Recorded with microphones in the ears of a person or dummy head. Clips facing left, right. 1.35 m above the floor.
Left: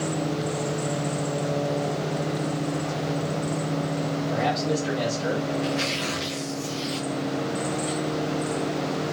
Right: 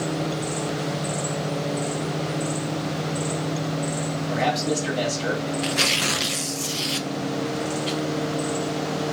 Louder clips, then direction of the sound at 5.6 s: Even; 60° right (ahead or behind).